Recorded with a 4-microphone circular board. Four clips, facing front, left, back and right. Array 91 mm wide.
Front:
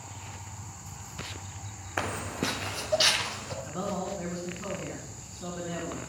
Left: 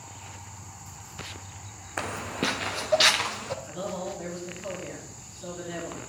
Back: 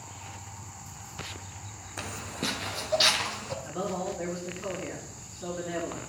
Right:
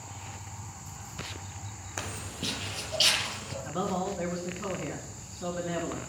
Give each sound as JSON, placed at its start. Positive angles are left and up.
{"t": 2.0, "sound": "footsteps", "azimuth_deg": 35, "distance_m": 0.6}
{"t": 3.6, "sound": "a man speaking", "azimuth_deg": -85, "distance_m": 2.5}